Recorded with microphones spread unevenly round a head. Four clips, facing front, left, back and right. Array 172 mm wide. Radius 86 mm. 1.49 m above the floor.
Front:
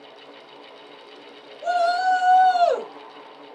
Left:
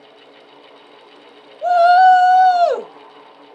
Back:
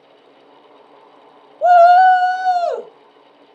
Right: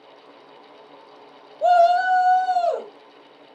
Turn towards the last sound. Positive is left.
turn(degrees=75)